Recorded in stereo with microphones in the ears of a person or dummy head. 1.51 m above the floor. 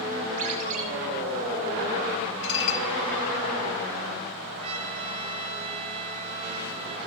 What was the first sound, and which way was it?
A ringtone, 45° right (ahead or behind).